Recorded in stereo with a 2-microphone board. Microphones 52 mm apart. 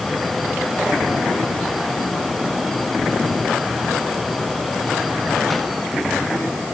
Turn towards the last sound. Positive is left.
No sound to turn to.